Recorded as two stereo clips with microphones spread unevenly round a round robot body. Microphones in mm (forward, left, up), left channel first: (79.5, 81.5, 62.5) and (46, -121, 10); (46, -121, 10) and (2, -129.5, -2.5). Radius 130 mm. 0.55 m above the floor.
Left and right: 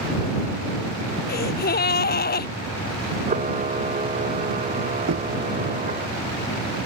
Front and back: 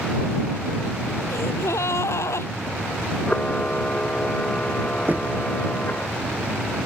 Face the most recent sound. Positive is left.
turn(degrees=-120)